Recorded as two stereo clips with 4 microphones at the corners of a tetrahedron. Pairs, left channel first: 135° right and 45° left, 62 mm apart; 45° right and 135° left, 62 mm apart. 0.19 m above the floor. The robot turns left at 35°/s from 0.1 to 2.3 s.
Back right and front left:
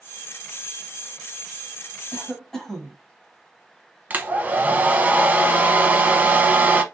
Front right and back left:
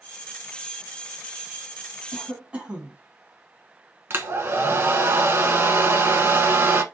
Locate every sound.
2.1 s a cough: 160° left, 1.0 m; by 3.0 s 155° left, 1.0 m
4.1 s a hair dryer: 100° left, 0.6 m